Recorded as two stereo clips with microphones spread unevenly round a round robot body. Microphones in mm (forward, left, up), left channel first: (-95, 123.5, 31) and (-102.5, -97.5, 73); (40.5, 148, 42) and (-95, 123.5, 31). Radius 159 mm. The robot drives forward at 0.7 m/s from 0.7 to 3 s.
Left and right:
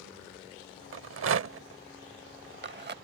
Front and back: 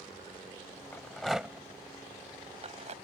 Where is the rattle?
65° right; by 2.9 s 135° right.